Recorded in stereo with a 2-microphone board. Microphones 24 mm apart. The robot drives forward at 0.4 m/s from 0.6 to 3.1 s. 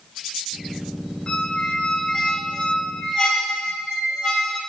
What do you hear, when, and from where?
1.3 s a squeak: 40° left (ahead or behind), 1.5 m; by 4.6 s 30° left (ahead or behind), 1.9 m